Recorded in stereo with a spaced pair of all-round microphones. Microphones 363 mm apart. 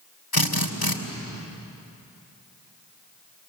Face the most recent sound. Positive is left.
turn(degrees=75)  # may be behind; listen again after turning